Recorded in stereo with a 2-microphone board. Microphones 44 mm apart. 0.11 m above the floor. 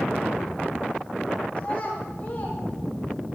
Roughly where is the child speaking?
Left.